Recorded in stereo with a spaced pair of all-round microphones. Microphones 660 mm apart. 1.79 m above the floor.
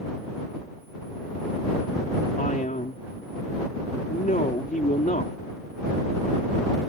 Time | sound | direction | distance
2.4 | a man speaking | 10° left (ahead or behind) | ?